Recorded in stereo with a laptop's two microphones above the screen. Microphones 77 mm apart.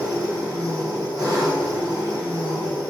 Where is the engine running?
55° right (ahead or behind), 1.4 m.